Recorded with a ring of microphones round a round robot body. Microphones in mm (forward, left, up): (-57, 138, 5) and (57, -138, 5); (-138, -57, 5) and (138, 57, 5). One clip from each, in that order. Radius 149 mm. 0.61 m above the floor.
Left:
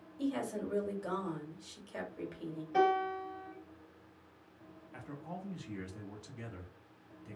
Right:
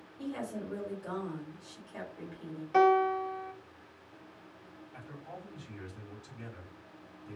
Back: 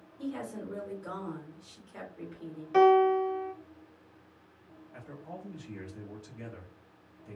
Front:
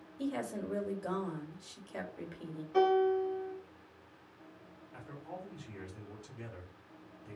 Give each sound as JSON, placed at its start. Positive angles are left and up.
{"t": 0.2, "sound": "a woman speaking", "azimuth_deg": 50, "distance_m": 0.9}
{"t": 2.7, "sound": "a piano", "azimuth_deg": -105, "distance_m": 0.7}
{"t": 4.9, "sound": "a man speaking", "azimuth_deg": 105, "distance_m": 1.1}